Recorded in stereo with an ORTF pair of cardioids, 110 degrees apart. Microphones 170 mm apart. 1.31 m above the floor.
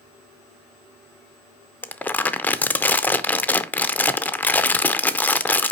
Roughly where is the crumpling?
Ahead.